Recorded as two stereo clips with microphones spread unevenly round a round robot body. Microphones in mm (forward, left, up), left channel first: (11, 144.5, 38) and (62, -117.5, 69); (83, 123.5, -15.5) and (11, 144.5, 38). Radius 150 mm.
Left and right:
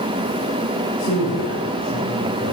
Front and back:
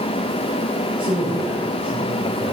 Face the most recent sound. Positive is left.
turn(degrees=135)